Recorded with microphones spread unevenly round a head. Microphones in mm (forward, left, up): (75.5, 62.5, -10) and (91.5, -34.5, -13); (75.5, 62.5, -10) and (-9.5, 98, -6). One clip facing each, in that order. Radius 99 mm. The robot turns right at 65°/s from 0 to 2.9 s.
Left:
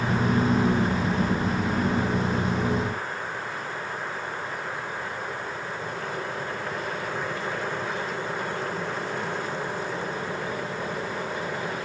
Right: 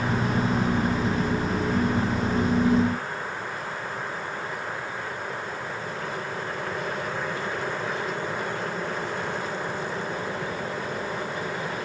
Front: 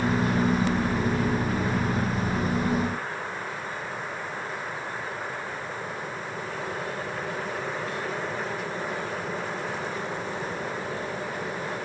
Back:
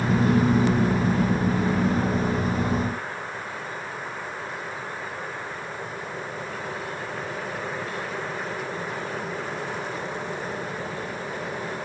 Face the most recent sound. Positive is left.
No sound to turn to.